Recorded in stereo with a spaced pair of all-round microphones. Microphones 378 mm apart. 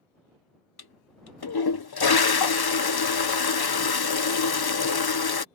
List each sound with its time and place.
0.8 s a toilet flushing: 75° left (ahead or behind)